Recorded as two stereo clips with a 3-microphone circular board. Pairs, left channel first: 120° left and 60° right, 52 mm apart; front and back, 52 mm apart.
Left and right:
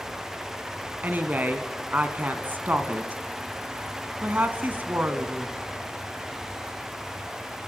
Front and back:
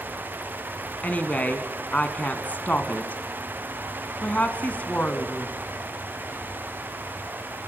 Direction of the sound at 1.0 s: 40° right.